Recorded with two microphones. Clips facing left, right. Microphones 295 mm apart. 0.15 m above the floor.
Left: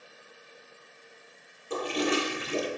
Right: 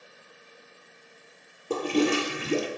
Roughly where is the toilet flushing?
Right.